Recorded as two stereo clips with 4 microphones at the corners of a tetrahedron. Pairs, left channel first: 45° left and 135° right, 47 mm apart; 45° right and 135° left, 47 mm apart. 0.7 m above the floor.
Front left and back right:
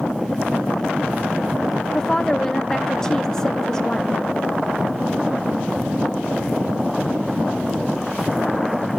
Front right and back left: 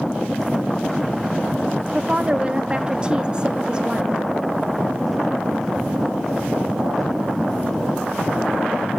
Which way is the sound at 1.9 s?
105° left.